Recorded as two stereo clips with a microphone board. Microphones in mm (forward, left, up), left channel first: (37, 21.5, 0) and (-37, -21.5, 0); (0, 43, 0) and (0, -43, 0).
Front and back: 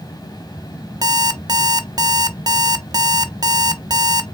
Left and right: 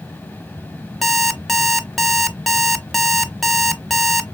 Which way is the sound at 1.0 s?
Straight behind.